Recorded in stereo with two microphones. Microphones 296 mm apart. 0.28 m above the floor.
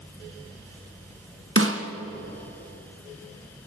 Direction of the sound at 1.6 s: 45° right (ahead or behind).